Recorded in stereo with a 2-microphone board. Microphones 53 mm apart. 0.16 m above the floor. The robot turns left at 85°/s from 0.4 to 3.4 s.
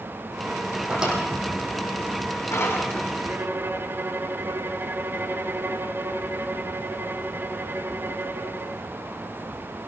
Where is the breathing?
I don't hear breathing.